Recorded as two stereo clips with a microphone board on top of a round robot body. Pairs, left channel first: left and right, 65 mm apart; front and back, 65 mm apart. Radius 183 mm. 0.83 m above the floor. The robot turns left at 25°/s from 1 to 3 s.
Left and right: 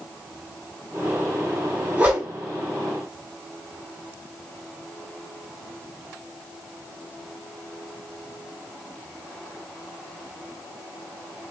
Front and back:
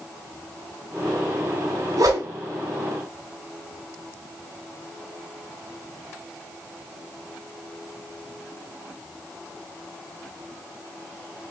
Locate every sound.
2.0 s a whoosh: 160° right, 2.5 m; by 2.3 s 170° right, 2.5 m